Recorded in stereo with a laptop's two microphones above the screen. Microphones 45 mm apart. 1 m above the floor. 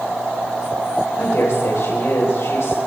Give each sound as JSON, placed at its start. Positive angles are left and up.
{"t": 1.2, "sound": "a woman speaking", "side_deg": 75, "distance_m": 3.5}